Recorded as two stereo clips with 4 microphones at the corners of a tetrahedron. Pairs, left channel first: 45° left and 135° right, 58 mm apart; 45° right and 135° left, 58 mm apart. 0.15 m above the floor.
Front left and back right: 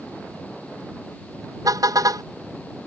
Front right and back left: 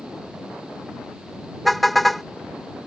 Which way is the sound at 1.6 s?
135° right.